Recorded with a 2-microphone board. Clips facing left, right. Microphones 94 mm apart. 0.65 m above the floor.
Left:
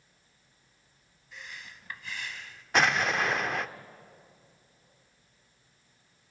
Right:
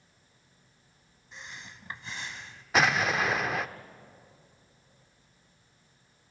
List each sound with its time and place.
1.3 s breathing: 25° right (ahead or behind), 0.8 m
2.7 s an explosion: centre (ahead or behind), 0.5 m